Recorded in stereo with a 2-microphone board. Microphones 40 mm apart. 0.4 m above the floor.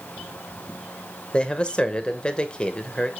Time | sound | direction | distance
1.3 | a man speaking | 25° left (ahead or behind) | 1.1 m